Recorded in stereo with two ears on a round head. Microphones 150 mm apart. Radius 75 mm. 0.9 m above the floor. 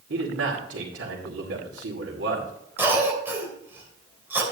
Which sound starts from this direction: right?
A man speaking, at 0.1 s.